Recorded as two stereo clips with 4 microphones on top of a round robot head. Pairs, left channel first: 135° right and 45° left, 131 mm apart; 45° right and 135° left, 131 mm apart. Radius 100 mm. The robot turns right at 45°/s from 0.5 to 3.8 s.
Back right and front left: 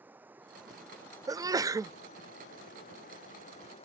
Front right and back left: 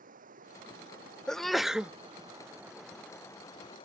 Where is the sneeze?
35° left; by 1.9 s 65° left.